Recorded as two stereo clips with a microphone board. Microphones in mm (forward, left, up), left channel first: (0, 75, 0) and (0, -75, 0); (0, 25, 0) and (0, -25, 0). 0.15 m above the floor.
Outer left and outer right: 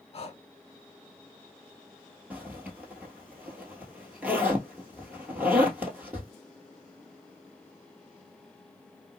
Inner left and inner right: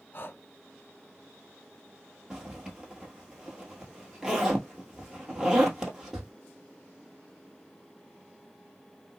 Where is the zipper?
10° right (ahead or behind), 1.2 m.